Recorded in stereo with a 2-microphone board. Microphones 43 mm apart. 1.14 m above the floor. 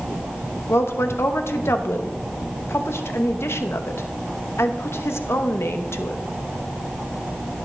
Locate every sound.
0.7 s a woman speaking: 80° left, 0.9 m